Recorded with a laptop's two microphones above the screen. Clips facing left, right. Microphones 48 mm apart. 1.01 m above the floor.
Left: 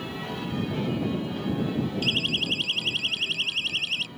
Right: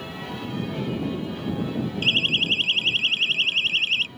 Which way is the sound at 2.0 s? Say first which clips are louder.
Right 4 dB; 35° right (ahead or behind).